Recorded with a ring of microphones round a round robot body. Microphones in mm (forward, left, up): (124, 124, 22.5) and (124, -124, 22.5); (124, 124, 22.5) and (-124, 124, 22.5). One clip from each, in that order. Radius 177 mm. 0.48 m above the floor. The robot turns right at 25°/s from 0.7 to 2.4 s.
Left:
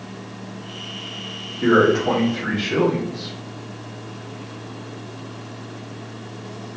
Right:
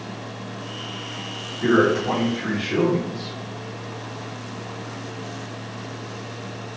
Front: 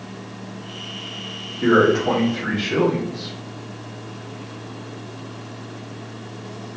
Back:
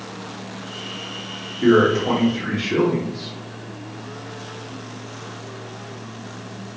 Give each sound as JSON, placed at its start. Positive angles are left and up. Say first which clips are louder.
{"t": 1.6, "sound": "a man speaking", "louder": "left 3 dB, even", "azimuth_deg": 85, "distance_m": 0.7}